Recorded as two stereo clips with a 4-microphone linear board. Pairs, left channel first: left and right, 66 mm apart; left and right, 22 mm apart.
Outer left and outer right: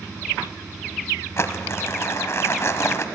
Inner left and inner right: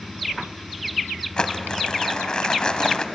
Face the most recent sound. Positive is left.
turn(degrees=45)  # may be behind; listen again after turning